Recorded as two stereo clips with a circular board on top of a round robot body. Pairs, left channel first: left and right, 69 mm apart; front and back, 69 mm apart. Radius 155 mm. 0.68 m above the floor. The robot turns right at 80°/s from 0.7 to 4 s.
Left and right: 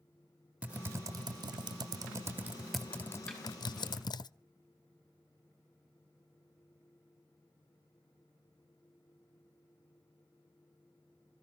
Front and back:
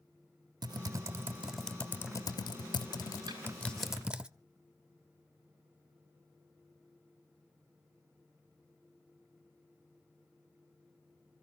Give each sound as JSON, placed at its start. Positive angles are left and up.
{"t": 0.6, "sound": "typing on a keyboard", "azimuth_deg": -165, "distance_m": 0.7}
{"t": 3.3, "sound": "a snare drum", "azimuth_deg": 170, "distance_m": 8.0}